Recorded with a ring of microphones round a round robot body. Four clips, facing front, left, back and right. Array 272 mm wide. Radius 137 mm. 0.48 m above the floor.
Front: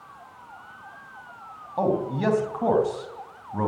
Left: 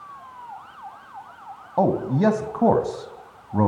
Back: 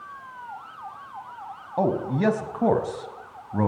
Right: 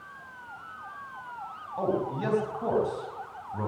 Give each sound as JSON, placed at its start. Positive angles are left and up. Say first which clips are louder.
{"t": 1.8, "sound": "a man speaking", "louder": "left 9 dB, back 1 dB", "azimuth_deg": 110, "distance_m": 4.0}